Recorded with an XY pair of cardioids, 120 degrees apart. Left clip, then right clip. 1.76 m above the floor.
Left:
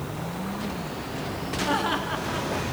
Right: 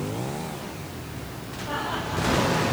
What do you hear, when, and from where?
1.6 s laughter: 65° left, 3.5 m